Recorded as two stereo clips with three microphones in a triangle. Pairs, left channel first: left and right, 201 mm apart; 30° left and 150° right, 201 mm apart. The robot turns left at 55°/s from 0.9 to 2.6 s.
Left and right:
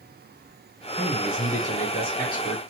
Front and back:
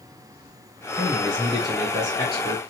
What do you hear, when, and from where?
0.9 s a man speaking: 160° left, 2.5 m; by 2.6 s 70° left, 2.5 m